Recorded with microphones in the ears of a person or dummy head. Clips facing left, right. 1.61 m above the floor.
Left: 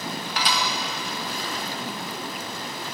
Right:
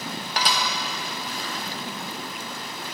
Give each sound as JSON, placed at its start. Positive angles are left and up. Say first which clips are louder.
{"t": 0.4, "sound": "dishes clattering", "louder": "right 1 dB", "side_deg": -40, "distance_m": 1.0}